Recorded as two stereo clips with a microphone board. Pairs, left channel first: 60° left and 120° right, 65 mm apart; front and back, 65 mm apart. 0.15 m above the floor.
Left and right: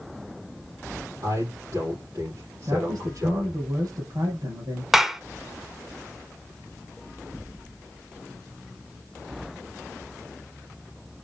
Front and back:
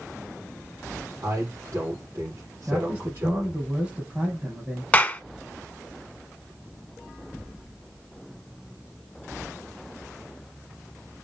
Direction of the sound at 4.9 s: 45° right.